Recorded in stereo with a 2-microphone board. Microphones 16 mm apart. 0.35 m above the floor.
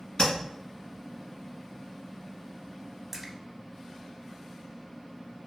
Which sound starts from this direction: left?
Tapping, at 0.2 s.